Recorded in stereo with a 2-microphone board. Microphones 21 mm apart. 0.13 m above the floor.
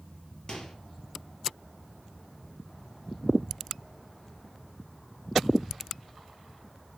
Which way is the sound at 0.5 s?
35° left (ahead or behind).